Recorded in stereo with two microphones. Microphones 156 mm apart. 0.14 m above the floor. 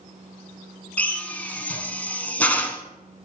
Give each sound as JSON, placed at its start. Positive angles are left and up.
{"t": 1.0, "sound": "a drill", "side_deg": 10, "distance_m": 0.8}